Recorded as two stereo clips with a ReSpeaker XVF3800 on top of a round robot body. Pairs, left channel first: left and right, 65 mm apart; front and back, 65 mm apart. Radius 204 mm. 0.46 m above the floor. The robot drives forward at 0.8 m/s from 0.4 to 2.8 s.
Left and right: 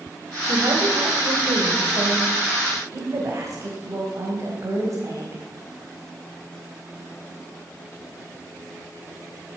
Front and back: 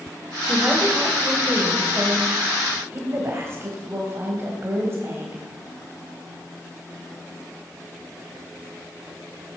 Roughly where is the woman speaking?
Right.